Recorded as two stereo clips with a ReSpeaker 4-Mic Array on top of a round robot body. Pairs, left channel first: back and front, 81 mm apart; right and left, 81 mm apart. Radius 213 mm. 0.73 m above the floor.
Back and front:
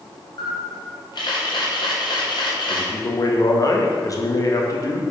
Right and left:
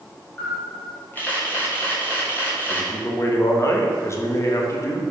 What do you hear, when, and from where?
0.4 s a camera shutter: 155° right, 2 m
2.7 s a man speaking: 140° right, 1.3 m